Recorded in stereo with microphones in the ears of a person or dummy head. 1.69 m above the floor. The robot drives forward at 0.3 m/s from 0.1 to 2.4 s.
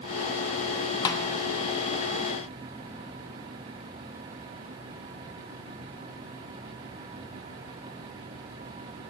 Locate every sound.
1.1 s a snare drum: 20° left (ahead or behind), 0.7 m